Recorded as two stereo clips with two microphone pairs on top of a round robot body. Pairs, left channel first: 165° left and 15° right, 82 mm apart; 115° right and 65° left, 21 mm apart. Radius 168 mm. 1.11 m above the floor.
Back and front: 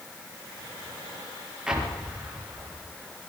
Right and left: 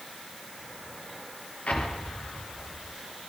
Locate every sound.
1.7 s an explosion: 95° right, 4.5 m